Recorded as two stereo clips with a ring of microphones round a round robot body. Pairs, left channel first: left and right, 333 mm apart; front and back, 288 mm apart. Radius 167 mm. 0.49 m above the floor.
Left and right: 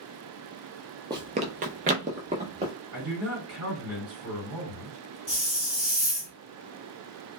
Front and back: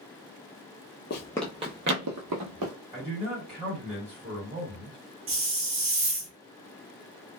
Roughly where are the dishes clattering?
I don't hear dishes clattering.